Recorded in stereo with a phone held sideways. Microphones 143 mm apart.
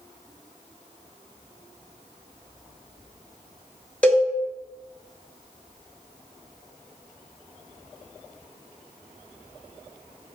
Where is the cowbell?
10° left (ahead or behind), 0.7 m.